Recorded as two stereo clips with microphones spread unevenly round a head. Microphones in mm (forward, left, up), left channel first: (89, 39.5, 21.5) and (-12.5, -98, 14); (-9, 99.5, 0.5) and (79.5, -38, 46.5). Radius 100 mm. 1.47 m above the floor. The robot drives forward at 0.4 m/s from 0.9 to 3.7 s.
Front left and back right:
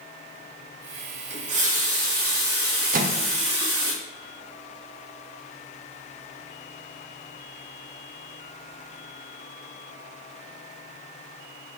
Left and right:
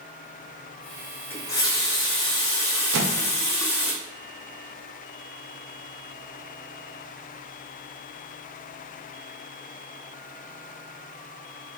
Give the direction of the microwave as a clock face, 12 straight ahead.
3 o'clock.